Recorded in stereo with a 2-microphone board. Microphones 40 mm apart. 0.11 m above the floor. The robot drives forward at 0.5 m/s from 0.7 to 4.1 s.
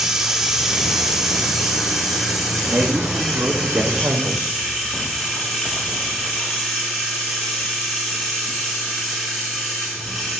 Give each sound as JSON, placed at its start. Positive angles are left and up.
{"t": 0.0, "sound": "running water", "side_deg": -10, "distance_m": 2.0}
{"t": 2.7, "sound": "a man speaking", "side_deg": -70, "distance_m": 4.5}